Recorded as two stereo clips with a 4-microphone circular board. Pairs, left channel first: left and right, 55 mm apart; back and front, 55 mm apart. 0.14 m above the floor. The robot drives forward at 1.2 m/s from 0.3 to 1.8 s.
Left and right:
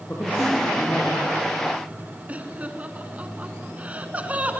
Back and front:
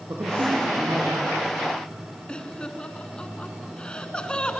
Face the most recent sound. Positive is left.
turn(degrees=-125)